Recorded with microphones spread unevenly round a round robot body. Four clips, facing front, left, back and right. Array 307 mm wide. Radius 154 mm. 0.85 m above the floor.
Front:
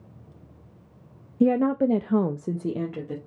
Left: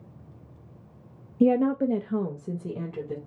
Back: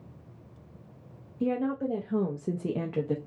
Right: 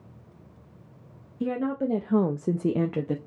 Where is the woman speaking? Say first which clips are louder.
Left 6 dB, front 8 dB; 25° left, 0.7 m; by 3.2 s 95° right, 1.0 m.